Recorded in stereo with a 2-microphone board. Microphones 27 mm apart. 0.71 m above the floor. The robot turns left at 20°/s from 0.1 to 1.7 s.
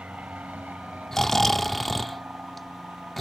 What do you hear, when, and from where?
0.0 s an aircraft: 55° right (ahead or behind); by 3.2 s 70° right (ahead or behind)
1.1 s snoring: 20° left (ahead or behind); by 3.2 s 10° left (ahead or behind)